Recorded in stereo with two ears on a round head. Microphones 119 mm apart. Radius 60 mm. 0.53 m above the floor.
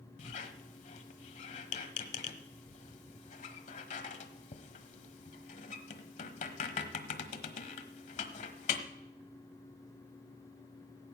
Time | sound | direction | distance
0.2 | a squeak | 60° left (ahead or behind) | 1.2 m